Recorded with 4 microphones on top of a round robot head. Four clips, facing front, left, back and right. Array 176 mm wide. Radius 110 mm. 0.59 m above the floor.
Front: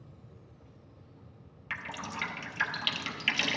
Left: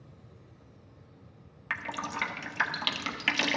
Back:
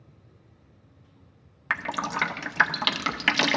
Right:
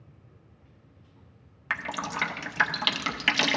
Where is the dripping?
175° right, 0.5 m.